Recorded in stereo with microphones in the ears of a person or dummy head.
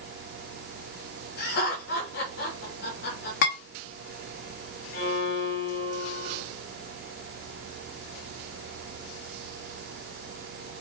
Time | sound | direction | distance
1.4 | laughter | 75° left (ahead or behind) | 2 m
3.4 | dishes clattering | 60° left (ahead or behind) | 1.9 m
4.9 | a violin | 50° left (ahead or behind) | 2 m